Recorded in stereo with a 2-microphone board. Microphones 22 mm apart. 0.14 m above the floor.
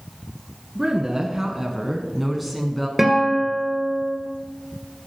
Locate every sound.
0.8 s a woman speaking: 30° right (ahead or behind), 1.3 m; by 2.9 s 10° left (ahead or behind), 1.1 m
3.0 s a guitar: 10° right (ahead or behind), 1.9 m